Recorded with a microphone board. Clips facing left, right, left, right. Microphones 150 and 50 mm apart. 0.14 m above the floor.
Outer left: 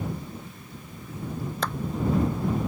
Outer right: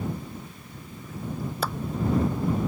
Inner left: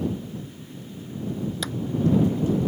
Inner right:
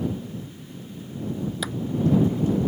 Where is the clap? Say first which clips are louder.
Outer right 1 dB, inner right 1 dB; 10° right (ahead or behind).